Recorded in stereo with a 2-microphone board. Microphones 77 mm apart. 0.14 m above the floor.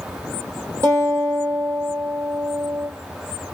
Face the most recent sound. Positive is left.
turn(degrees=-40)  # may be behind; listen again after turning